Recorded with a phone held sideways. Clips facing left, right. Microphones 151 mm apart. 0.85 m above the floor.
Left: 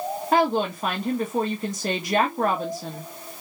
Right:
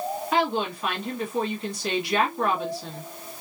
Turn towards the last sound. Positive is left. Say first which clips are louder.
# left 4 dB
turn(degrees=45)  # may be behind; listen again after turning